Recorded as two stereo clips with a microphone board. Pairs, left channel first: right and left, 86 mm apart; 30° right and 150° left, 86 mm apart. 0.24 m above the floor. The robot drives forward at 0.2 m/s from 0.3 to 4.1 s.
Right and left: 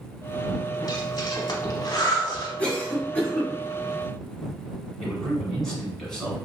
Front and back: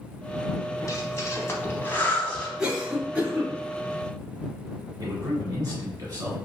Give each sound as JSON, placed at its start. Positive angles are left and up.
{"t": 0.8, "sound": "breathing", "azimuth_deg": -65, "distance_m": 0.7}
{"t": 2.6, "sound": "a cough", "azimuth_deg": -140, "distance_m": 1.0}
{"t": 5.0, "sound": "a man speaking", "azimuth_deg": -170, "distance_m": 1.7}